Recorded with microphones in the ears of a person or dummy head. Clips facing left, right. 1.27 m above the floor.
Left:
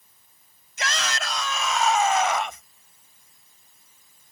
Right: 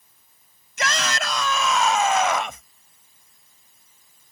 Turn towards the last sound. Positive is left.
turn(degrees=-65)  # may be behind; listen again after turning